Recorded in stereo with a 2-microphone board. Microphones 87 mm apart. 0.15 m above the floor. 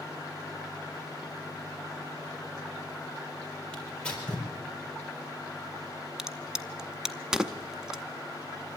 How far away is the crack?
About 0.7 m.